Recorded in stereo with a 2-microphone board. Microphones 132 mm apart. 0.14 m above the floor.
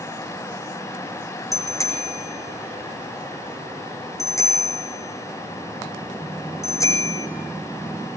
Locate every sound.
1.5 s a bicycle bell: 25° left (ahead or behind), 4.5 m